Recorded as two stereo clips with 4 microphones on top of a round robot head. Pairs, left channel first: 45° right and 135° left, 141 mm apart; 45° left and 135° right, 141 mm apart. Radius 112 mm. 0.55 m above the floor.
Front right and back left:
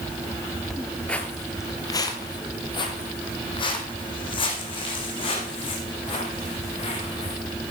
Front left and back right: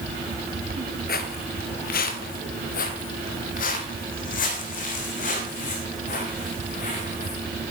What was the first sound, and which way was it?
Footsteps, 40° left.